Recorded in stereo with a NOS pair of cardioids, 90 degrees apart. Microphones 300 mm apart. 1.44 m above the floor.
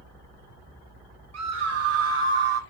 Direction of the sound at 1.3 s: 65° right.